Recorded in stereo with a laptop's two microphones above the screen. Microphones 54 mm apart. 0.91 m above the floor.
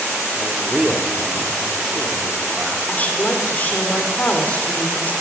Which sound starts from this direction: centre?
A man speaking, at 0.4 s.